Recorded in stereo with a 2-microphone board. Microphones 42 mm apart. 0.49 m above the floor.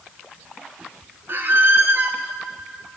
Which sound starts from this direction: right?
A squeak, at 1.3 s.